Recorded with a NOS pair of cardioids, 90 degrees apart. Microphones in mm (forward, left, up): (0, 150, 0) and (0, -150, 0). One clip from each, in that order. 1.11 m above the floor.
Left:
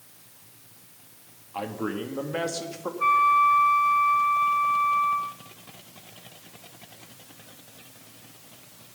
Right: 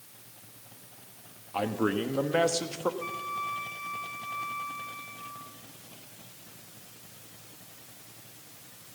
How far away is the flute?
About 0.9 m.